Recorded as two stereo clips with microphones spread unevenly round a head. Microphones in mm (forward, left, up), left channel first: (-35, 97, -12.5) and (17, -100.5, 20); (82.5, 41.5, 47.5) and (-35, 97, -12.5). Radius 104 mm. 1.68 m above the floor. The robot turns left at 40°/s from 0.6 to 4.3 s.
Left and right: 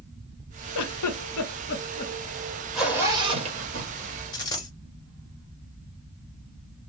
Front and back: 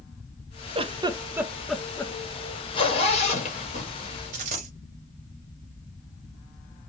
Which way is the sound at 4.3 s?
170° left.